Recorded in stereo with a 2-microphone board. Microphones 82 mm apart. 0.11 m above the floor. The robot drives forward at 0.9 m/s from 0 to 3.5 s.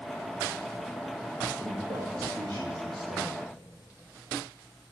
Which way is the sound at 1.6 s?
60° right (ahead or behind).